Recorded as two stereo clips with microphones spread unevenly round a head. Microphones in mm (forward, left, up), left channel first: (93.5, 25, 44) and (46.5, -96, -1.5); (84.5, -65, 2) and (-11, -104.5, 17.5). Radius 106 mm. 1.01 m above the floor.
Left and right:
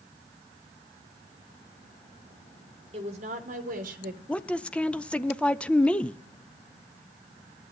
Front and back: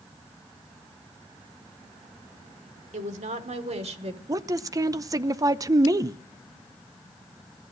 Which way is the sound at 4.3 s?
170° right.